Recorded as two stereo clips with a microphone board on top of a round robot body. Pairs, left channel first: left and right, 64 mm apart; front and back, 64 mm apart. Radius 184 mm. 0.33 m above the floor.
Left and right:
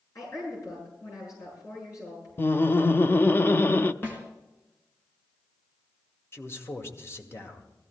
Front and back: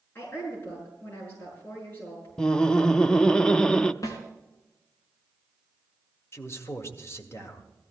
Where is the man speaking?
45° left, 2.5 m.